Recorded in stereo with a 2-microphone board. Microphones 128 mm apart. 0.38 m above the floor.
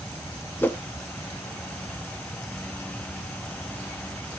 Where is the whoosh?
15° left (ahead or behind), 0.8 m.